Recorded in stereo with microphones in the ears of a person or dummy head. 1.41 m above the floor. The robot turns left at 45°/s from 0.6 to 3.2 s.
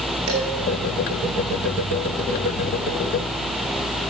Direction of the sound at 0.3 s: 60° right (ahead or behind).